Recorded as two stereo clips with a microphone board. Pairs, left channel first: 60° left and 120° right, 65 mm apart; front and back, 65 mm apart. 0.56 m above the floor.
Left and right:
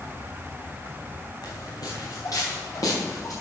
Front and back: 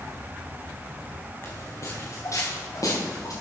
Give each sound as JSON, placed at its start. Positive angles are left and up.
{"t": 1.4, "sound": "footsteps", "azimuth_deg": 55, "distance_m": 2.5}